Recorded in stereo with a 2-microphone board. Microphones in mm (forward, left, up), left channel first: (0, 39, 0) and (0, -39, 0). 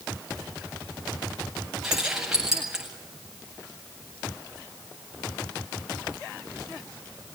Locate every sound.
1.8 s keys jangling: 5° right (ahead or behind), 8 m